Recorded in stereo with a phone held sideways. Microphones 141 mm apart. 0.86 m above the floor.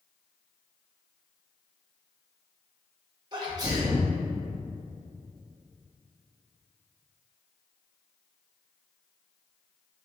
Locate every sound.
3.3 s a sneeze: 30° right (ahead or behind), 1.1 m